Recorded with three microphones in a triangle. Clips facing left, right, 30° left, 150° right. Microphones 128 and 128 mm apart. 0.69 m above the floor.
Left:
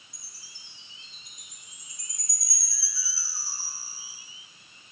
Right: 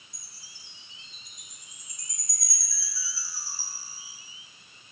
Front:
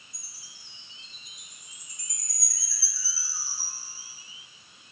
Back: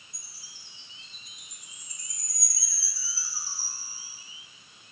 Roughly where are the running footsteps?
No running footsteps in this recording.